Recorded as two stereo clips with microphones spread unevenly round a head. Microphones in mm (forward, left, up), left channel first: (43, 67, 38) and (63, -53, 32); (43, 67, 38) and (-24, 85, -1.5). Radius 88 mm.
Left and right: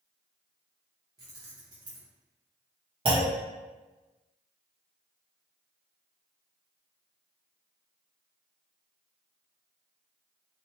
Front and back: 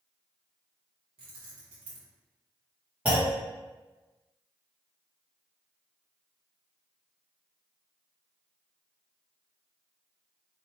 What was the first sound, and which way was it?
Keys jangling, 150° right.